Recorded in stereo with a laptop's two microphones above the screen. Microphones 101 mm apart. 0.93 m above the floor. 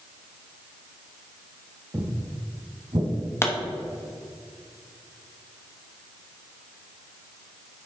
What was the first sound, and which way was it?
Footsteps, 30° right (ahead or behind).